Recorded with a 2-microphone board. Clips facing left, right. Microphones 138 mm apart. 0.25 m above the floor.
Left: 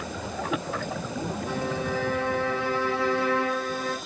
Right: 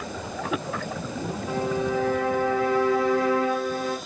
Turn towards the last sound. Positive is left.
turn(degrees=70)  # may be behind; listen again after turning